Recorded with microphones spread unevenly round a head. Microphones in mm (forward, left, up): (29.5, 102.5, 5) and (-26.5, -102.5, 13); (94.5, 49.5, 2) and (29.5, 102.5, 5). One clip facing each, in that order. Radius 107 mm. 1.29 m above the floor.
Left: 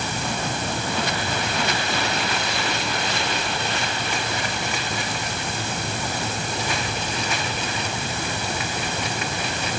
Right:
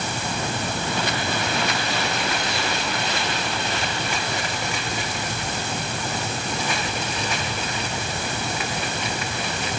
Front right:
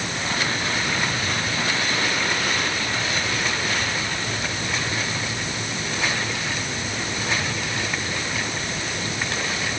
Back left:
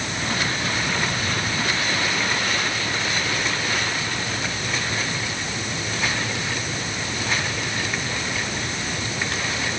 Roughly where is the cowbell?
I don't hear a cowbell.